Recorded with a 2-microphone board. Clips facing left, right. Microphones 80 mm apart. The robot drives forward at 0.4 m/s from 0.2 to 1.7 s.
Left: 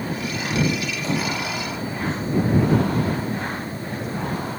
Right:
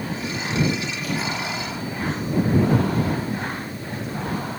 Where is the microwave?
30° left (ahead or behind).